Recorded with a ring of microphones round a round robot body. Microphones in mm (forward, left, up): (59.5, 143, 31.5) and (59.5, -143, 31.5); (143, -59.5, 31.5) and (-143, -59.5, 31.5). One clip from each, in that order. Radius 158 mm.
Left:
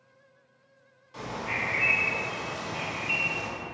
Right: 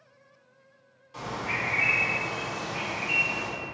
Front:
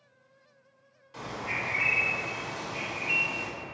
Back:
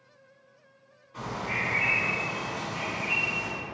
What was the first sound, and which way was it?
A bird, 5° left.